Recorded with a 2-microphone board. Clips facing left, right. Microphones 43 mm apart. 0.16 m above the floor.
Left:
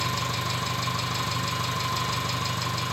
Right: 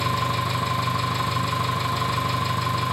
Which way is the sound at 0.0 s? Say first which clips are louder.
Right 5 dB; 15° right (ahead or behind).